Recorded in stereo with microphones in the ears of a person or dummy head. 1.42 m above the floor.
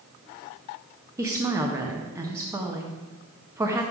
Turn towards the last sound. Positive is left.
turn(degrees=-10)  # may be behind; listen again after turning